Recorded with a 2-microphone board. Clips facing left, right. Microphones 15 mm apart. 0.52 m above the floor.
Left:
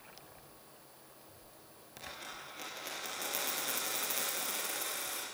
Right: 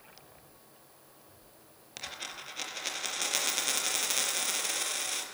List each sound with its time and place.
2.0 s a dropped coin: 55° right (ahead or behind), 4.5 m